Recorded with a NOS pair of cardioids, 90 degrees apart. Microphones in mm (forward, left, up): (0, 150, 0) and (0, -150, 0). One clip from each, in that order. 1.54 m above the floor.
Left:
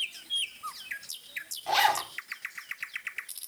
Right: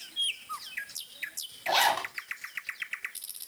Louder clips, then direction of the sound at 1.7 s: Even; 5° right.